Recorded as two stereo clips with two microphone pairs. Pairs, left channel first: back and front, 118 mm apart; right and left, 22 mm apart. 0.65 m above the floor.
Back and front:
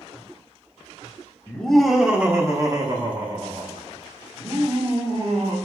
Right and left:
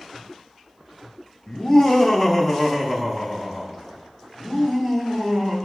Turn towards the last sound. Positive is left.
turn(degrees=30)